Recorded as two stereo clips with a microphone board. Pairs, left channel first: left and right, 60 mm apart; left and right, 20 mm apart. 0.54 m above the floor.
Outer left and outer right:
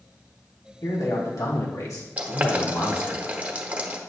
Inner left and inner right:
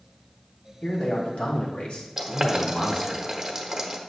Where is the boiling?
25° right (ahead or behind), 1.3 m.